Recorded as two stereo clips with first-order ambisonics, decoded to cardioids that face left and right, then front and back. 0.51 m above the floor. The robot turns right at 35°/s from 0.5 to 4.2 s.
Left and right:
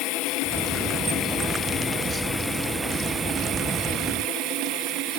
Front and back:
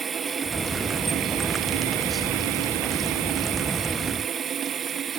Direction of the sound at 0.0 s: 110° left.